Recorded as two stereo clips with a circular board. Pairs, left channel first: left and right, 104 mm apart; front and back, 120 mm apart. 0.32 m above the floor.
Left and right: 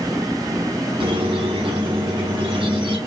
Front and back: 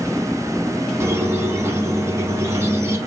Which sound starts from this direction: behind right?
A squeak, at 1.0 s.